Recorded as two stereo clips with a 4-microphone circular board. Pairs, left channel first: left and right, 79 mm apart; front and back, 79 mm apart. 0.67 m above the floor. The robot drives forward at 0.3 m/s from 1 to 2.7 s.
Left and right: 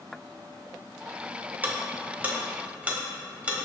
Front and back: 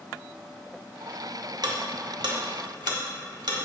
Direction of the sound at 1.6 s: 155° right.